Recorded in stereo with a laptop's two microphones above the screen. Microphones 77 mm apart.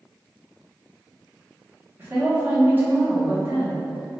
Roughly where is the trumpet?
I don't hear a trumpet.